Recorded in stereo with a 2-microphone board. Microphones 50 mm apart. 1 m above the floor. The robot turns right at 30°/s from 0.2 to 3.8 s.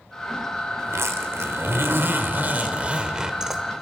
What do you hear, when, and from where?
0.8 s a zipper: 90° right, 1.3 m; by 3.6 s 5° right, 1.3 m